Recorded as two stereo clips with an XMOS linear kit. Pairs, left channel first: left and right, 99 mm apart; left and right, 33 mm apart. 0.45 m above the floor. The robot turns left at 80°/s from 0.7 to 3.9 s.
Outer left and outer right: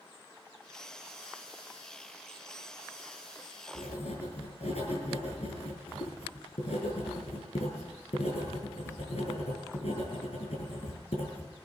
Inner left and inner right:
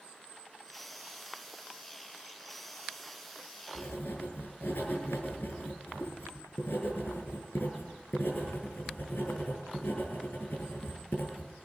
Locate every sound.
3.8 s writing: 80° left, 7 m; by 11.5 s 85° left, 7 m